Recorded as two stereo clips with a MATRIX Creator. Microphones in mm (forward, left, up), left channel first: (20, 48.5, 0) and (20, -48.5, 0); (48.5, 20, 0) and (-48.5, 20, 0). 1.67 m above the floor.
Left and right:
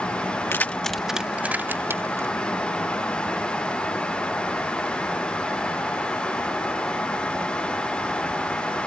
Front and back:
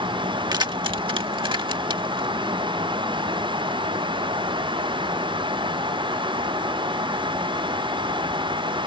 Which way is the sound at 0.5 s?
150° left.